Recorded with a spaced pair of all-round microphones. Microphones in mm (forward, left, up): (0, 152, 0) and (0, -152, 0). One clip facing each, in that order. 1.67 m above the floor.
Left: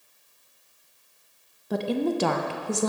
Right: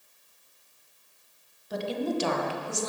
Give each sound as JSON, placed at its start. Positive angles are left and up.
{"t": 1.7, "sound": "a woman speaking", "side_deg": 70, "distance_m": 0.5}